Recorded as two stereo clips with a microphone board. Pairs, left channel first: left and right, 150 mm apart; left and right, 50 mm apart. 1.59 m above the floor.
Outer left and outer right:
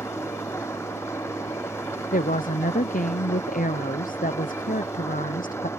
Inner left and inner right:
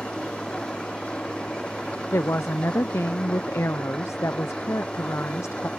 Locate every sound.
0.0 s an engine running: 20° left (ahead or behind)
2.1 s a woman speaking: 70° left (ahead or behind)